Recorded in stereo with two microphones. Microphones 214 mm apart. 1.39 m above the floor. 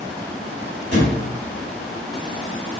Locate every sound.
0.9 s a thud: 50° right (ahead or behind), 1.3 m